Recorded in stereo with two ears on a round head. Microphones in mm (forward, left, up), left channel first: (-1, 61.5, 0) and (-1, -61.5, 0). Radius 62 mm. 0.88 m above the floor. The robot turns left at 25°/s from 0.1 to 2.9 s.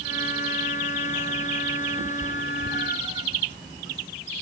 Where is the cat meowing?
55° right (ahead or behind), 1.5 m; by 3.3 s 35° right (ahead or behind), 1.5 m.